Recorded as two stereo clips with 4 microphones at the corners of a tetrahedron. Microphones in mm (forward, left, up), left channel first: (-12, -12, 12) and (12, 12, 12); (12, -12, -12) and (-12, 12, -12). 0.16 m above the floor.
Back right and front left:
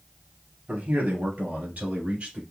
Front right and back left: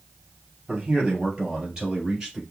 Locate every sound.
0.7 s a man speaking: 70° left, 3 m; by 2.4 s 65° left, 2.0 m